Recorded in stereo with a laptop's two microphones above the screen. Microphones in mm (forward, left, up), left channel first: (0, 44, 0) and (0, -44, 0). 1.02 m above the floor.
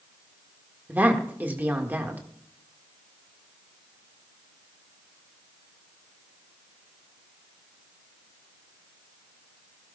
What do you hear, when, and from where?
0.9 s a woman speaking: 20° right (ahead or behind), 1.5 m